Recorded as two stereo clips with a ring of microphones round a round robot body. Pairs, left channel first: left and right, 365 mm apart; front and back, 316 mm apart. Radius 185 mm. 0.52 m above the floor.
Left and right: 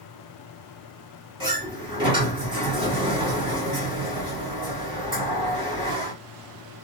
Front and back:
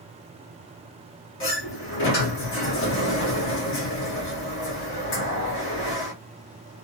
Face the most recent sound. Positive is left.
turn(degrees=-20)